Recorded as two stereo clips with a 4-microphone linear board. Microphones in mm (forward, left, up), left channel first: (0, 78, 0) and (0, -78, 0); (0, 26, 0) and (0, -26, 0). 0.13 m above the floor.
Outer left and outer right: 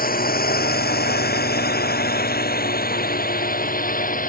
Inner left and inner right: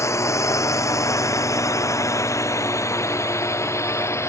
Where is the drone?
70° left (ahead or behind); by 4.3 s 60° left (ahead or behind).